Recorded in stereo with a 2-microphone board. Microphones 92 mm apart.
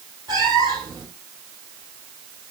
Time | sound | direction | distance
0.3 | a cat meowing | 40° right (ahead or behind) | 4 m